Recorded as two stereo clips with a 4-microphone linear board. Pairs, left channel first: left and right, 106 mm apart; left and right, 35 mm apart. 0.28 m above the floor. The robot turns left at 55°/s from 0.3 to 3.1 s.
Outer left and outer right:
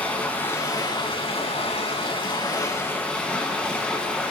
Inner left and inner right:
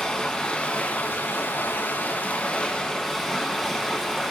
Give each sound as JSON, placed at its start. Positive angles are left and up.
{"t": 0.0, "sound": "running water", "azimuth_deg": 165, "distance_m": 2.0}